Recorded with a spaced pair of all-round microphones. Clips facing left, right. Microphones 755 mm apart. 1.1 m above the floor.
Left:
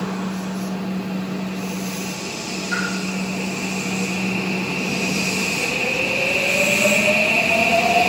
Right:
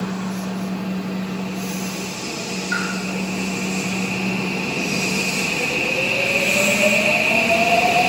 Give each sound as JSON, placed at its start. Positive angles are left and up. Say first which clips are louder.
{"t": 2.7, "sound": "a pop", "louder": "left 3 dB", "side_deg": 15, "distance_m": 5.5}